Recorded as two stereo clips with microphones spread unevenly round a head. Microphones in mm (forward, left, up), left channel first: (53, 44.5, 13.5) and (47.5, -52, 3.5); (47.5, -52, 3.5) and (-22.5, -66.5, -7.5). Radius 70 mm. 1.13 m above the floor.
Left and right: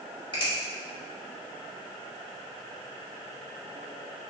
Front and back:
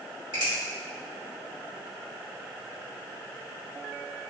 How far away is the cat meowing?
I don't hear a cat meowing.